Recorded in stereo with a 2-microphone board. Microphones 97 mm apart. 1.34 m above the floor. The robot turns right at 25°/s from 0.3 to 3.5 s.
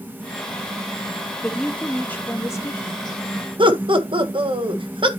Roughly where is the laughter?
Right.